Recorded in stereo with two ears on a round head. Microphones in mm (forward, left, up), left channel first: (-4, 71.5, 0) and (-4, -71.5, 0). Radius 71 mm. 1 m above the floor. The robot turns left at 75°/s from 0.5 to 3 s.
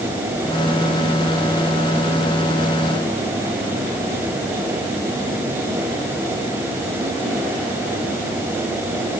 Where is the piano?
No piano in this recording.